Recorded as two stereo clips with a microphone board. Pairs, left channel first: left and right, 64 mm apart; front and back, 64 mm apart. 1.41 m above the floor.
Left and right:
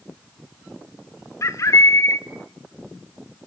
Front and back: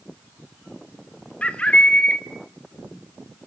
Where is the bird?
70° left, 1.1 m.